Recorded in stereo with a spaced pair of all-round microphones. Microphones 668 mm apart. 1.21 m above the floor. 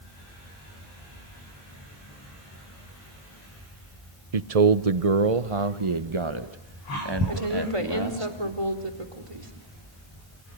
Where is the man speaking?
65° right (ahead or behind), 1.0 m; by 8.3 s 35° right (ahead or behind), 2.5 m.